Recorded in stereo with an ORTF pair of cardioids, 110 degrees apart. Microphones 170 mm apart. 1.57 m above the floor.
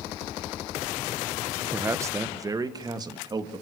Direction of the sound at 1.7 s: 15° right.